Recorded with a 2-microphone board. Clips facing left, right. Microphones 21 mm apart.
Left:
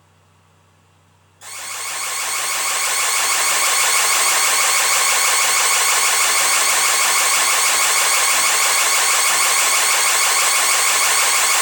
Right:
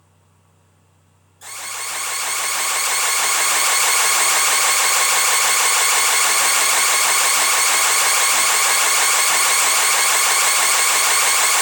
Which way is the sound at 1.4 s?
15° left (ahead or behind).